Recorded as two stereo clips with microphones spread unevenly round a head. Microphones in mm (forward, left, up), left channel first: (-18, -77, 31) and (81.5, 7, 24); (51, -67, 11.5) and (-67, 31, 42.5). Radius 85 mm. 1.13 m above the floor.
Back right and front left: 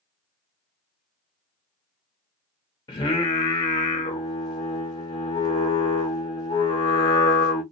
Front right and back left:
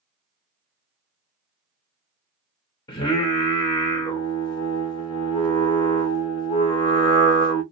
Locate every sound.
2.9 s singing: 100° right, 0.9 m